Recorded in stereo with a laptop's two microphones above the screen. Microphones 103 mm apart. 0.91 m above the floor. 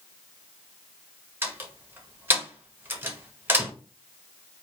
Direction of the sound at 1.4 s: 20° right (ahead or behind).